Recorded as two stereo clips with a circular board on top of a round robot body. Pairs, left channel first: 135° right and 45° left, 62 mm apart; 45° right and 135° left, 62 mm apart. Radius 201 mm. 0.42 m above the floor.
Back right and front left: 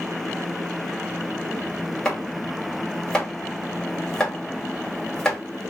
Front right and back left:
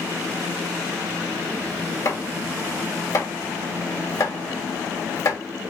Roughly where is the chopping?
Ahead right.